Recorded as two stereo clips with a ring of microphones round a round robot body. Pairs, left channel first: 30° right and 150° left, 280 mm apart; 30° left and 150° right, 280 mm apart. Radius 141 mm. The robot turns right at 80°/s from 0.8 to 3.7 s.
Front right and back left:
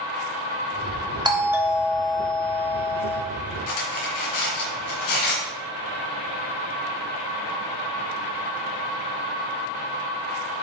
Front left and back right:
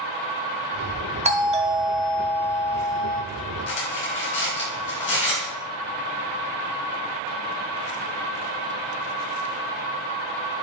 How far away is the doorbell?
About 1.1 m.